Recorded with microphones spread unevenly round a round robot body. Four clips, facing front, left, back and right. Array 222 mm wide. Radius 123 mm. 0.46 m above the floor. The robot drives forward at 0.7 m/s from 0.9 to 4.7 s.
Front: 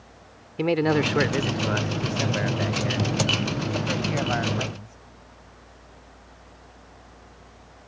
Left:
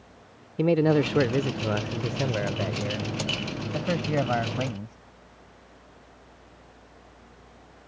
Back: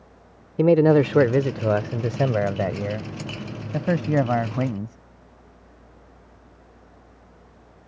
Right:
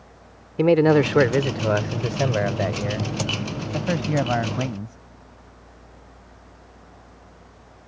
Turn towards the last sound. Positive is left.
turn(degrees=-170)